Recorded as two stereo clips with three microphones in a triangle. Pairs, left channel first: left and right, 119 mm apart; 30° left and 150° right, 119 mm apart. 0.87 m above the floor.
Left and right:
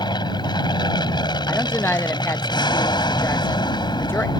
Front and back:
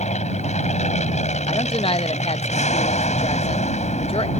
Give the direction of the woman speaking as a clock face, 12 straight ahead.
11 o'clock.